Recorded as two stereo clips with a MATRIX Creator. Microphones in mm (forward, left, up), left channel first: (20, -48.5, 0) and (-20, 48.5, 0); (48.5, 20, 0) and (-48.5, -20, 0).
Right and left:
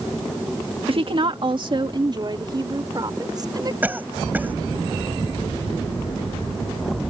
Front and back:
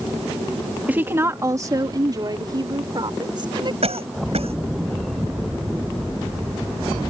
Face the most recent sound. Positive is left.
turn(degrees=-175)